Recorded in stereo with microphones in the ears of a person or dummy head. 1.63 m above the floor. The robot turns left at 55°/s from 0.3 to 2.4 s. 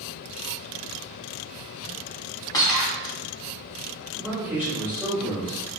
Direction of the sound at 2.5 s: 20° left (ahead or behind).